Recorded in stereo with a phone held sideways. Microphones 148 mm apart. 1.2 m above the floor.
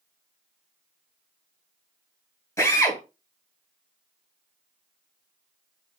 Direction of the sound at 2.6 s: 20° left (ahead or behind).